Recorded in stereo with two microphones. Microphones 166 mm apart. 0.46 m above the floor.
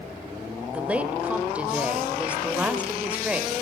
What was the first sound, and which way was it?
A woman speaking, 10° right (ahead or behind).